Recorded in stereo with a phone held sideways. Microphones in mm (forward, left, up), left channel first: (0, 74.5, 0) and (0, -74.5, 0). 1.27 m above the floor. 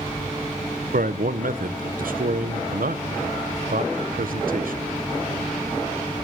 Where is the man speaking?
80° right, 0.6 m.